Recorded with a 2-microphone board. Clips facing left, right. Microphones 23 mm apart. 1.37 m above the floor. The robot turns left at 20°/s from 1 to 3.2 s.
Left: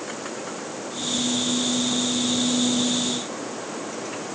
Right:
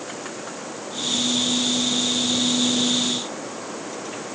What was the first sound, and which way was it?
Only background noise.